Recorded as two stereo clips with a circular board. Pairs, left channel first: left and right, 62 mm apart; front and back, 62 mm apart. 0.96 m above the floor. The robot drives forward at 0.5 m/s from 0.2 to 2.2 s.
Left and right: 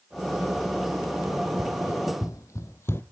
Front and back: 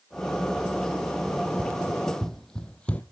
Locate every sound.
1.3 s running footsteps: 85° left, 2.5 m; by 3.0 s 60° left, 1.2 m